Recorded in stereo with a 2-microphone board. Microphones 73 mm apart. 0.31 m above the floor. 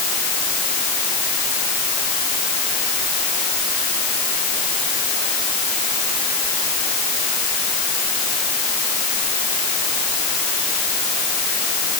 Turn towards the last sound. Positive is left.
No sound to turn to.